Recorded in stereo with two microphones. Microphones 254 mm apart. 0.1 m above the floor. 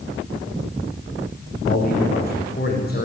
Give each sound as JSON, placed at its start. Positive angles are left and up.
{"t": 1.7, "sound": "a man speaking", "side_deg": 40, "distance_m": 7.5}